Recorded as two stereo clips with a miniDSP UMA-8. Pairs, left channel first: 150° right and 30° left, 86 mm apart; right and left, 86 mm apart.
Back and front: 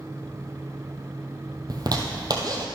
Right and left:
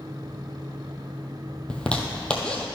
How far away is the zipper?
About 1.2 m.